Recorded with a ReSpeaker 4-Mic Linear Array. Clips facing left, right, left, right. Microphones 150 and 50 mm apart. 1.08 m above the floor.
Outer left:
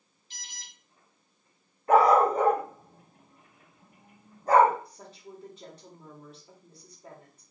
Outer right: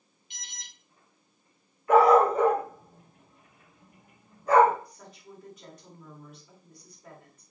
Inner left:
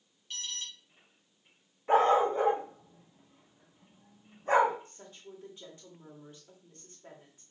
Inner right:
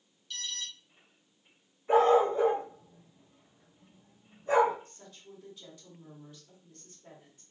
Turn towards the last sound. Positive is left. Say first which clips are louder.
# outer left 2 dB, inner left 2 dB
turn(degrees=30)  # may be behind; listen again after turning